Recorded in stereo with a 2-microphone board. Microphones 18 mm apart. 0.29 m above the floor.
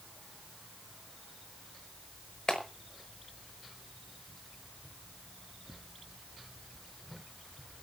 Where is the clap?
50° left (ahead or behind), 5 m.